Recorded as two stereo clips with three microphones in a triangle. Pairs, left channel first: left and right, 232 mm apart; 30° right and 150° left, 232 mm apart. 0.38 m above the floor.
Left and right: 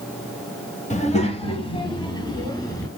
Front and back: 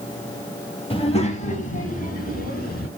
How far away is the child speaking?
About 1.3 m.